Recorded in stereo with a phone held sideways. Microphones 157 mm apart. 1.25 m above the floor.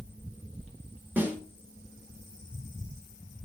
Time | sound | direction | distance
1.2 | a snare drum | 10° right (ahead or behind) | 2 m